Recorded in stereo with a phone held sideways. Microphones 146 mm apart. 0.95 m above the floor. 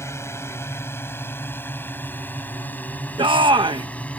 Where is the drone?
20° left (ahead or behind); by 4.2 s 10° left (ahead or behind).